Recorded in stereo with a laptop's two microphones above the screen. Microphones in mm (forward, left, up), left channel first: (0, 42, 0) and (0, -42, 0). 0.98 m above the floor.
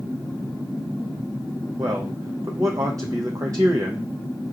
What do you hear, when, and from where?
1.8 s a man speaking: 45° right (ahead or behind), 0.7 m